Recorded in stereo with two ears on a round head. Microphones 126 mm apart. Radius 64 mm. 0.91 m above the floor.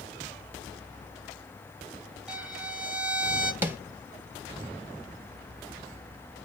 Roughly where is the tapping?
Centre.